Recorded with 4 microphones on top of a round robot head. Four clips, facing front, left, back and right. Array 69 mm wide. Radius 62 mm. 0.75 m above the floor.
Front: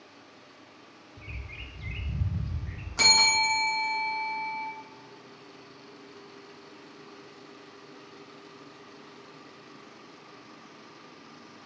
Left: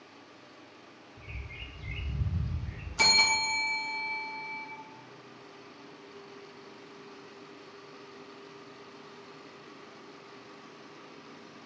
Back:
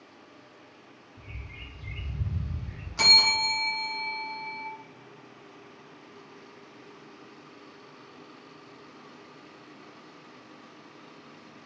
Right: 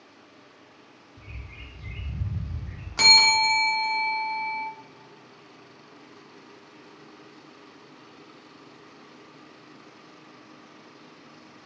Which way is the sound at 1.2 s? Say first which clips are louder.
Even, front 2 dB; 15° right.